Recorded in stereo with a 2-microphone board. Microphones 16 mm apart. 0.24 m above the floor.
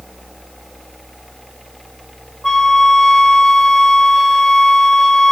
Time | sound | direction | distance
2.4 | a flute | 30° left (ahead or behind) | 1.1 m